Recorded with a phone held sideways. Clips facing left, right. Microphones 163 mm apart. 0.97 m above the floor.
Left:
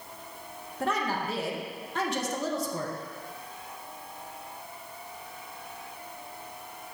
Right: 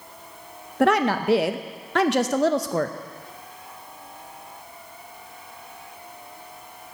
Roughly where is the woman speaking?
Right.